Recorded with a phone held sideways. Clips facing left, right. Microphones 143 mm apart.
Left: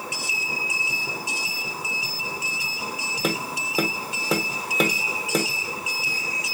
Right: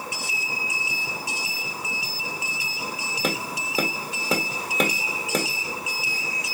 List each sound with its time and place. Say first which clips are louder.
3.2 s tapping: left 1 dB; centre (ahead or behind), 0.9 m